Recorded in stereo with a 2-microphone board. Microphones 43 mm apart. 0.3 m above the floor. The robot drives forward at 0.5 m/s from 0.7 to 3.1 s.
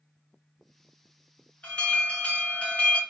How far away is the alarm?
About 2.0 m.